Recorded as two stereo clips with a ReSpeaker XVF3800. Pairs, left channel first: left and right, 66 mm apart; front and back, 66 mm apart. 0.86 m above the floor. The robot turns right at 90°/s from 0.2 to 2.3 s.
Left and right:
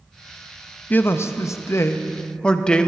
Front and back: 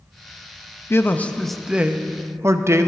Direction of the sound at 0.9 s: 35° left.